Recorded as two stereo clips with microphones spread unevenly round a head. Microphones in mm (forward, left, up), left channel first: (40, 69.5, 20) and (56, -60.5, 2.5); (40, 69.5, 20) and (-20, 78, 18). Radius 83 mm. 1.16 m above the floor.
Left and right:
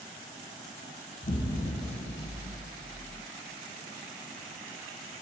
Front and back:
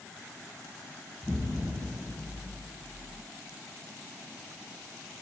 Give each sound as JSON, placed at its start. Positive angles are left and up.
{"t": 1.2, "sound": "an explosion", "azimuth_deg": 65, "distance_m": 1.1}